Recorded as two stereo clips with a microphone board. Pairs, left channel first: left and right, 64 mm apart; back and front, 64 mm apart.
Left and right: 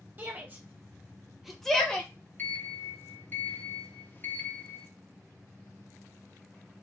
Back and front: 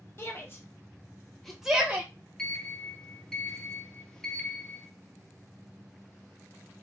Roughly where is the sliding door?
Left.